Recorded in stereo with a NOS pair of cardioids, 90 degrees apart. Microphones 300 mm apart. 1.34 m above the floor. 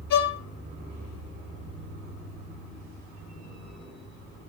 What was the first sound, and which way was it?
A violin, 70° left.